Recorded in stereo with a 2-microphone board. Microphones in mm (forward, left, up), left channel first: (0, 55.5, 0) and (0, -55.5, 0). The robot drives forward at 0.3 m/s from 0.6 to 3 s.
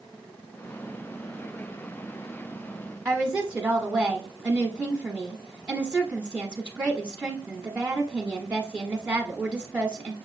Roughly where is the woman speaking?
Centre.